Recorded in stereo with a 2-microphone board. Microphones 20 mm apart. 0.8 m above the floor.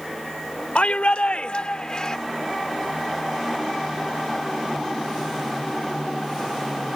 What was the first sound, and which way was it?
A shout, 75° left (ahead or behind).